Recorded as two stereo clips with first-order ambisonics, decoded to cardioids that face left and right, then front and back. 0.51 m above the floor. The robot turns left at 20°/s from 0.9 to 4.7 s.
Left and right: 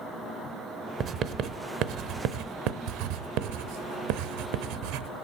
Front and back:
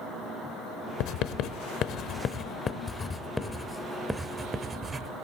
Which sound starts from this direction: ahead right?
Writing, at 1.0 s.